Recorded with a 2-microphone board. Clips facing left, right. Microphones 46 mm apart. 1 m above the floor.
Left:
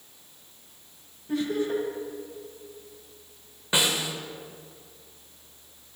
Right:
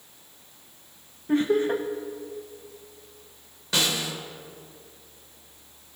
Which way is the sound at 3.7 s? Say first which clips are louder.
Left 1 dB; 20° left (ahead or behind).